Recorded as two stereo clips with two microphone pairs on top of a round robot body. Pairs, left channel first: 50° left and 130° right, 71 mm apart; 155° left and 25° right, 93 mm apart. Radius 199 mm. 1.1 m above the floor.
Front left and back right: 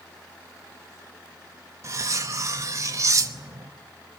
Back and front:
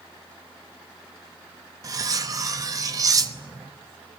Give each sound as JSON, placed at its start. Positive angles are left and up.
{"t": 1.8, "sound": "cutlery clinking", "azimuth_deg": -80, "distance_m": 1.0}